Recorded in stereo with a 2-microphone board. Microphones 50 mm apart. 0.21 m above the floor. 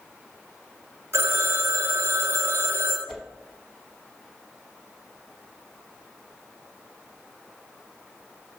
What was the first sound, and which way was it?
A phone ringing, 65° right (ahead or behind).